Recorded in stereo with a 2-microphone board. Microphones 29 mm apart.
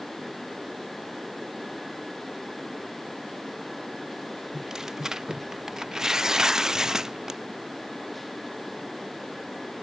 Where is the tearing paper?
15° right (ahead or behind).